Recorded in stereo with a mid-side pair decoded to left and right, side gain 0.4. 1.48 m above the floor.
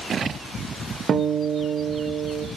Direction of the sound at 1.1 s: 60° right.